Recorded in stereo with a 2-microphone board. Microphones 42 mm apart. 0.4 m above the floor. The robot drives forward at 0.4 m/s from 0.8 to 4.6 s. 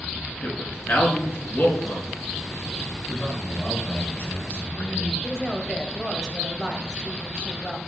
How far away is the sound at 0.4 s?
About 4.5 m.